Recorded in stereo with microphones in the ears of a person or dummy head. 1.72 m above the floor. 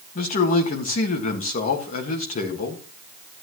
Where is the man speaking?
40° left (ahead or behind), 1.7 m.